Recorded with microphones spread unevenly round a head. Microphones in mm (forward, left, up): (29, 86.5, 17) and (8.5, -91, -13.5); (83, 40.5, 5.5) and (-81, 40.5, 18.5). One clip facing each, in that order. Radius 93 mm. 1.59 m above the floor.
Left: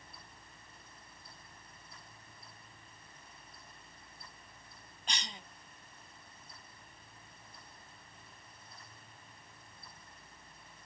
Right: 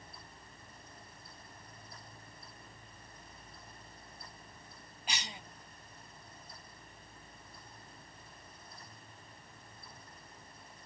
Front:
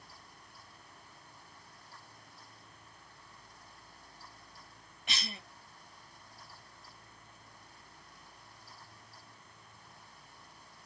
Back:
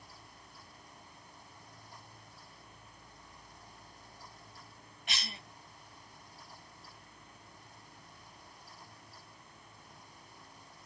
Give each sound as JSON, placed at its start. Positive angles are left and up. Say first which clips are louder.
{"t": 5.1, "sound": "a cough", "louder": "right 1 dB, front 2 dB", "azimuth_deg": -10, "distance_m": 0.8}